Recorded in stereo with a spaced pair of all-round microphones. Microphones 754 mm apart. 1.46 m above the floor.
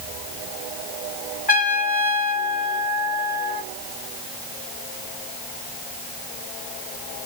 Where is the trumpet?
10° left (ahead or behind), 1.9 m.